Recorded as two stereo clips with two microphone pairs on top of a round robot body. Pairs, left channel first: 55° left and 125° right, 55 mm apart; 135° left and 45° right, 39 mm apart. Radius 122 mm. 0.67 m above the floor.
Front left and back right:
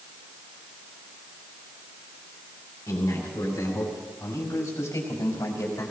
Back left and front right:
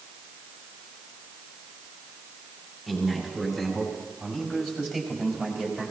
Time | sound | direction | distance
2.9 | a man speaking | 35° left | 6.5 m